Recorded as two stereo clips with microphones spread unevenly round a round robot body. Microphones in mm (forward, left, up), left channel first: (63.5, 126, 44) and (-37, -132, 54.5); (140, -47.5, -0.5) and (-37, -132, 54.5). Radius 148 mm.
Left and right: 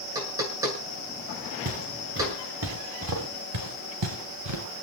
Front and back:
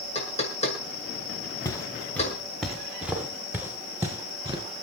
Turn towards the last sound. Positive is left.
turn(degrees=-85)